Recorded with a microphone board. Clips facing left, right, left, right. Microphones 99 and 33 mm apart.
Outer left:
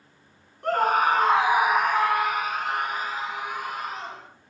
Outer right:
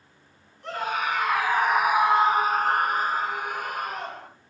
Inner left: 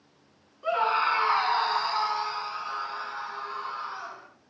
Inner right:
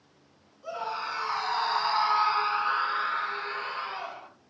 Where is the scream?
50° left (ahead or behind), 1.8 m; by 4.3 s 55° right (ahead or behind), 4 m.